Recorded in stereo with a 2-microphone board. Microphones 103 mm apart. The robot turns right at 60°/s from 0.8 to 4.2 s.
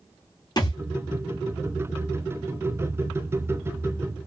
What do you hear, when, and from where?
0.6 s a thud: 40° left (ahead or behind), 1.8 m